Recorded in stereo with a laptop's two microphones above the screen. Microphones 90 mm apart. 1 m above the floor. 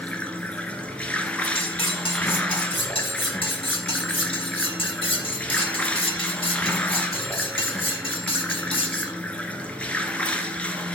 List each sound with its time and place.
0.0 s running water: 15° left (ahead or behind), 1.1 m
1.6 s cutlery clinking: 80° left, 1.5 m